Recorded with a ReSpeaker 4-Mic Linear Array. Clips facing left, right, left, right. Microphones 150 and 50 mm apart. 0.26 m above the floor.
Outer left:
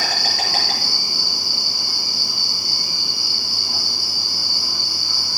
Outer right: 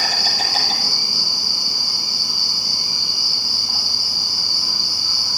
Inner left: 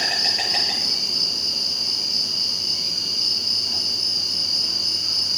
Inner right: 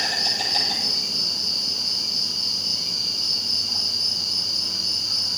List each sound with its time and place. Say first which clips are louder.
0.0 s an insect: even, inner left 1 dB; 60° left (ahead or behind), 7.5 m